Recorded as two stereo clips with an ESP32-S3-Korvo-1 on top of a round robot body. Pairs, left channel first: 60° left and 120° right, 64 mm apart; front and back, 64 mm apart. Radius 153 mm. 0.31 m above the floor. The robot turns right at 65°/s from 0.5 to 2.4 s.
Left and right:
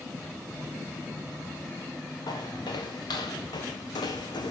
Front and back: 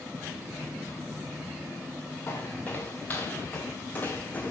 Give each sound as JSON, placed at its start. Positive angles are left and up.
{"t": 2.3, "sound": "footsteps", "azimuth_deg": 55, "distance_m": 3.0}